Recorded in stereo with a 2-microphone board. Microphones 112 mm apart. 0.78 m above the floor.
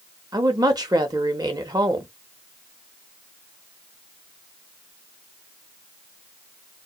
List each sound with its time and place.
0.3 s a woman speaking: 35° right (ahead or behind), 0.7 m